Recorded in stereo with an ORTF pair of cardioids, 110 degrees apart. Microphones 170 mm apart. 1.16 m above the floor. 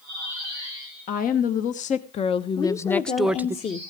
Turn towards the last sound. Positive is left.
turn(degrees=40)